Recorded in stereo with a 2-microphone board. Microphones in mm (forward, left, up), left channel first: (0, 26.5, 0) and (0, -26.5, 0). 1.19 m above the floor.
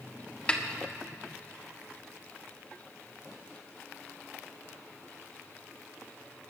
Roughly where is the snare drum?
Left.